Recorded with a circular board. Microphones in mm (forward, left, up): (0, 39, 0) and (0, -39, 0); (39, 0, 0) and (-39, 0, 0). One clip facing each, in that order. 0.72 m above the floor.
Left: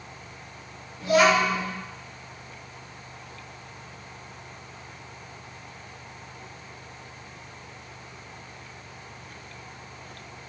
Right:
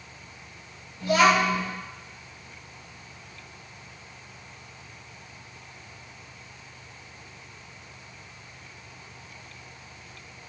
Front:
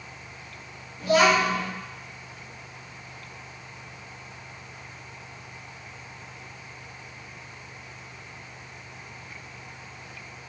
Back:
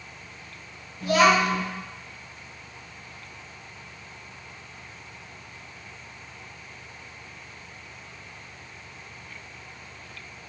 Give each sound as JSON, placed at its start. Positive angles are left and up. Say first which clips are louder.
{"t": 1.0, "sound": "a child speaking", "louder": "even, back 1 dB", "azimuth_deg": 25, "distance_m": 1.8}